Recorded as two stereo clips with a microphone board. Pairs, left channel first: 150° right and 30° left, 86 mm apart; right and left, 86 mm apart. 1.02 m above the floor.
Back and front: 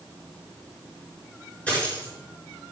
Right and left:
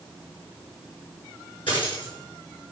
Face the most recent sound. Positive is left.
turn(degrees=-75)